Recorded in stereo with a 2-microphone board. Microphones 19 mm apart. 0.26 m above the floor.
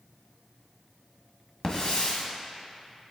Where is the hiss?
45° left (ahead or behind), 1.9 m.